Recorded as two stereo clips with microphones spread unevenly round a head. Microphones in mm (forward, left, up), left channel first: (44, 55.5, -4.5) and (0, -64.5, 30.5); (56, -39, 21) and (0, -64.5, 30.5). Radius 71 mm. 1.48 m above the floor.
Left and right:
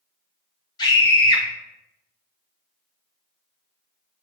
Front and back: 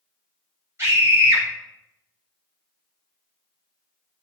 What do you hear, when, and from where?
0.8 s a scream: 135° left, 2.5 m